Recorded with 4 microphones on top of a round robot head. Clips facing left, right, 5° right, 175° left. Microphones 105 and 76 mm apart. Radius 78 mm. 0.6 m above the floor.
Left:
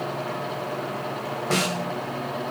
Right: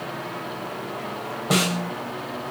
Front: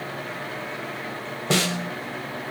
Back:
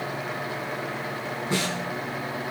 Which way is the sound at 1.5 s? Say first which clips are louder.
Right 3 dB, front 5 dB; 10° right.